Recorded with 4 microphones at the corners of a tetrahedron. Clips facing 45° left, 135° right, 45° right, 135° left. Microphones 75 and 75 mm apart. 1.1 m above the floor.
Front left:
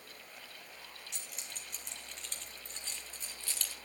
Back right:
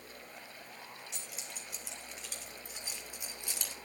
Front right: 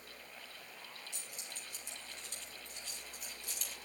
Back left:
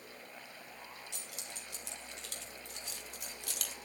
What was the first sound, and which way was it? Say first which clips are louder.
Keys jangling: back right 2 dB, back left 2 dB; 135° left.